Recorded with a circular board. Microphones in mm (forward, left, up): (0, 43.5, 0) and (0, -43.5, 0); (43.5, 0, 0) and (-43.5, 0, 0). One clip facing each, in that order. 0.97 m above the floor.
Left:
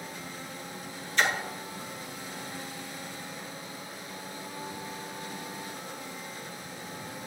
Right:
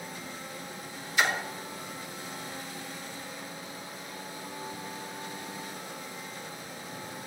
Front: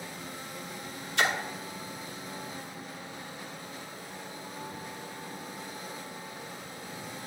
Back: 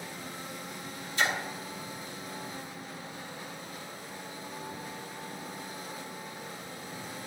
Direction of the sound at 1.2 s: 10° right.